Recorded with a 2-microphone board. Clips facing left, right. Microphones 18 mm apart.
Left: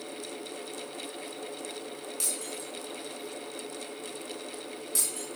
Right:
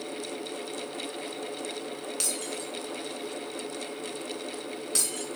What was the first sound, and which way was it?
Breaking glass, 40° right (ahead or behind).